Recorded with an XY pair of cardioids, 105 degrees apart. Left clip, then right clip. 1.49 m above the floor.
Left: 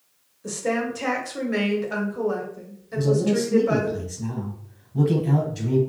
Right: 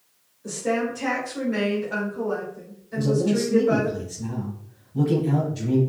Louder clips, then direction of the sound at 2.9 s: Left 1 dB; 30° left.